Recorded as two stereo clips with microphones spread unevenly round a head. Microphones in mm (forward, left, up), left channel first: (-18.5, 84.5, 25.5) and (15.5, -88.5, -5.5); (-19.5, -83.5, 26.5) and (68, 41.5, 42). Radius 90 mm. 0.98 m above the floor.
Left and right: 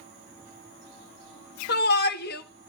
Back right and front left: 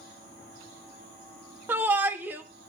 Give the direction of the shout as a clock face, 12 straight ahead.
8 o'clock.